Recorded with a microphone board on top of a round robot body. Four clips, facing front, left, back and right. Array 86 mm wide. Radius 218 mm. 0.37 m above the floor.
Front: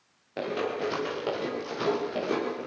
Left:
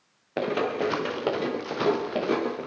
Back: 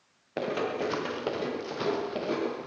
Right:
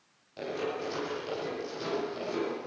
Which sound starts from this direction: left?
Running footsteps, at 0.4 s.